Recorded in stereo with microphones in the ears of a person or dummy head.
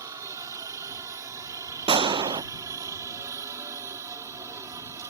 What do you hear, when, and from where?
0.0 s a helicopter: 15° right (ahead or behind)
1.9 s a gunshot: 25° right (ahead or behind)